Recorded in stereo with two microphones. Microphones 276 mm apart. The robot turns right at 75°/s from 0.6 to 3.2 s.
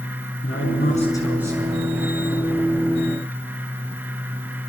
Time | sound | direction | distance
0.4 | a man speaking | 125° left | 6 m